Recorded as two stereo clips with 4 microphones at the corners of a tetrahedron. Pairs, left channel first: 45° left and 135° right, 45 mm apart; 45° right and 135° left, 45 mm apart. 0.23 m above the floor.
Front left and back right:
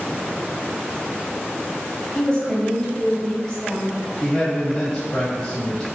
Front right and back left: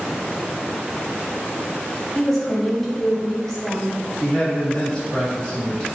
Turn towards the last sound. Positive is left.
turn(degrees=-30)